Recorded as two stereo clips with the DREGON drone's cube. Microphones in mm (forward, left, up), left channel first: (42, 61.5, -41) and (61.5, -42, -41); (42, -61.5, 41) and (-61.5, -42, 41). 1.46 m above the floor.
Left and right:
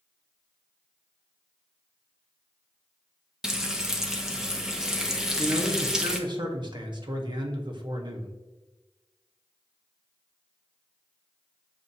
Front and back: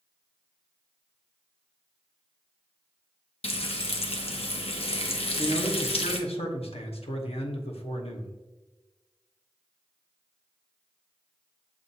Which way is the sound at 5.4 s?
35° right.